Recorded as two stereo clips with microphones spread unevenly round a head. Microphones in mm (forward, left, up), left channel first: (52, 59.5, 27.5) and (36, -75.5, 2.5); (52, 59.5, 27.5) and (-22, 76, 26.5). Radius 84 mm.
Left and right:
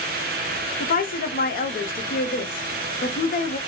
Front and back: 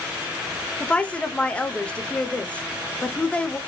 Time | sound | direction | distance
0.8 | a woman speaking | 60° left | 0.9 m